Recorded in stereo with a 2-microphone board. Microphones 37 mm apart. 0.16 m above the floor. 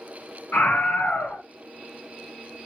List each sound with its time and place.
0.5 s a scream: 55° left (ahead or behind), 2.5 m